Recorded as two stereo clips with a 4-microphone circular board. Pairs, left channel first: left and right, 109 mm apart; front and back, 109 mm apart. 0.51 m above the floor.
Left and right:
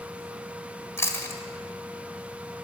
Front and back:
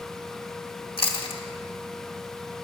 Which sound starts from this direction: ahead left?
Chewing, at 1.0 s.